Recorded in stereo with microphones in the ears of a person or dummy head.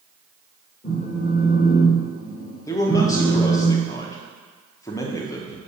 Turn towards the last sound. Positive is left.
turn(degrees=20)  # may be behind; listen again after turning